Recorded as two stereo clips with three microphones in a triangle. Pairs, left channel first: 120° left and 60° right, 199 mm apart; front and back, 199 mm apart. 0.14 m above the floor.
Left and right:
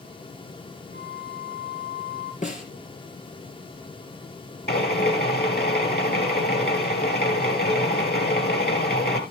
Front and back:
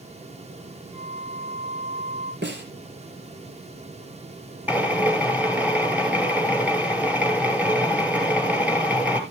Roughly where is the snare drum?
Behind.